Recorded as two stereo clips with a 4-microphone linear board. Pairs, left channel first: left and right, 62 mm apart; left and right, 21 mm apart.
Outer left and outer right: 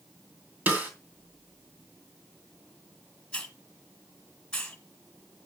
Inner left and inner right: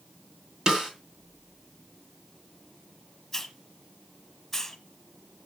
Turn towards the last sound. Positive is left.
turn(degrees=10)  # may be behind; listen again after turning